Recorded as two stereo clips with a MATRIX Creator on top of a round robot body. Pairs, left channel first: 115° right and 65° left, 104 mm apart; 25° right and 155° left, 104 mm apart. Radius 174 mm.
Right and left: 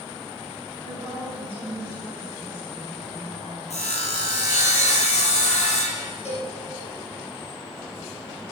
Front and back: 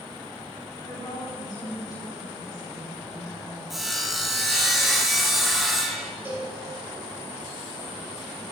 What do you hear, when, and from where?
0.8 s a woman speaking: 75° right, 6 m
3.7 s sawing: 115° right, 3 m
6.2 s a cowbell: 135° right, 5 m